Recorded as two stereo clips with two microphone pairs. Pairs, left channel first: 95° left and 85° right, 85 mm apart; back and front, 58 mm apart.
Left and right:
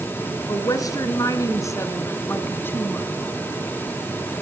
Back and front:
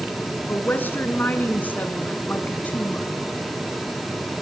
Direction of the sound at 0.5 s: 130° left.